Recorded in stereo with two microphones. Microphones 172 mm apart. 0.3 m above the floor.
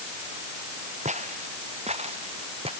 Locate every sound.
1.1 s footsteps: 45° right (ahead or behind); by 2.7 s 35° right (ahead or behind)